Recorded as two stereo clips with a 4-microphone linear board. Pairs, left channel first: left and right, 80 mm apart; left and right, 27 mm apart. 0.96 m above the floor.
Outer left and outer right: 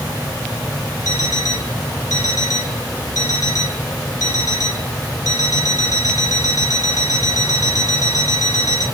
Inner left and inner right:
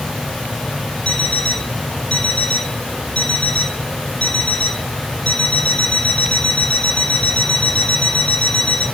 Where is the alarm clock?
45° left (ahead or behind), 4 m.